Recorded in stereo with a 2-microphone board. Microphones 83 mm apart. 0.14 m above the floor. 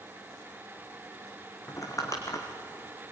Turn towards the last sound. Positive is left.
turn(degrees=40)  # may be behind; listen again after turning